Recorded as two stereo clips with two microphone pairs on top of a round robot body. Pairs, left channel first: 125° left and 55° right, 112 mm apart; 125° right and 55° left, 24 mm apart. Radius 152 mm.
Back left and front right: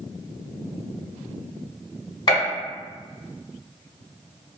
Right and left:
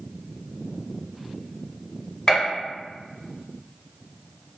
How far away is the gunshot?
About 1.1 m.